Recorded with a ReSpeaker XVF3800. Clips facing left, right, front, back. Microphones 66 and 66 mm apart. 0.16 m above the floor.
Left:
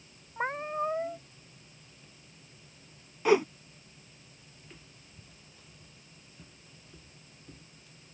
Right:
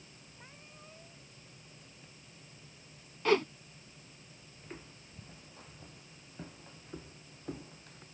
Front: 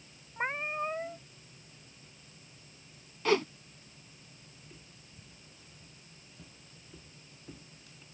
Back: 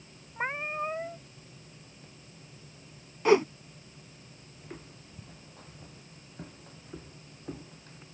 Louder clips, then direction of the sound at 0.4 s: Left 26 dB, back 1 dB; 95° left.